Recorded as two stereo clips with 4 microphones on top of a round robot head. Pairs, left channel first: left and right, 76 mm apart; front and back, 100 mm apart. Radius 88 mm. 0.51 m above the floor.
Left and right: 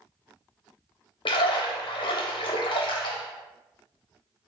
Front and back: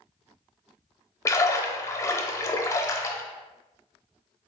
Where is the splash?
60° left, 0.5 m.